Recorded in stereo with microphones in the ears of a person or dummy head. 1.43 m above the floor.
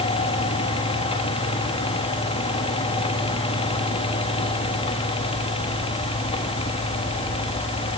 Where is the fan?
30° left (ahead or behind), 1.3 m.